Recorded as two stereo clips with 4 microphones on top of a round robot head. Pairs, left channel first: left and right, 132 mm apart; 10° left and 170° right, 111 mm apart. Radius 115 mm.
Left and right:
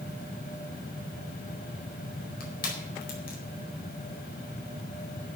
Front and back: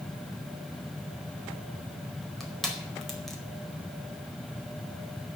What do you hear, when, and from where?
2.4 s crushing: 95° left, 4.5 m